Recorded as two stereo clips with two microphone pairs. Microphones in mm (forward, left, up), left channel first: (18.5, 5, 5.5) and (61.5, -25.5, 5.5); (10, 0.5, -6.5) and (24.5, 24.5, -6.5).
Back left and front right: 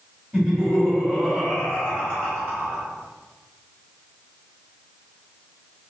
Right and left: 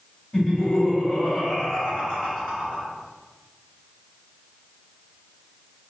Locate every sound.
0.3 s laughter: 135° right, 1.5 m; by 2.8 s 165° right, 2.5 m